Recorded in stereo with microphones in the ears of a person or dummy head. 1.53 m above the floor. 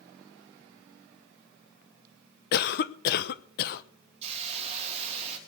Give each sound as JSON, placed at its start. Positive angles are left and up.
{"t": 2.5, "sound": "a cough", "side_deg": 60, "distance_m": 0.9}
{"t": 4.2, "sound": "a hiss", "side_deg": -35, "distance_m": 3.0}